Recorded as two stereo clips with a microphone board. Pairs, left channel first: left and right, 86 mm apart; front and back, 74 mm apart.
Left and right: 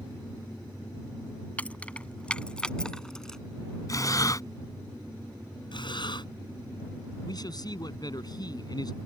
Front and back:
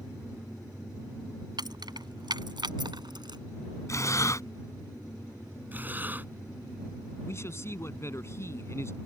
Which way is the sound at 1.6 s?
165° left.